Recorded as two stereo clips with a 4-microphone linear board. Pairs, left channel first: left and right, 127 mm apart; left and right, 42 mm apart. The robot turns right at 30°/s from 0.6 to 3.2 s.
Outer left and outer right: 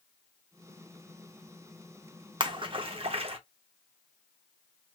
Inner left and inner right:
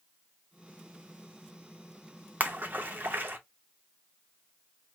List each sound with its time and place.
2.4 s a splash: 40° right (ahead or behind), 0.6 m; by 3.4 s 50° right (ahead or behind), 0.6 m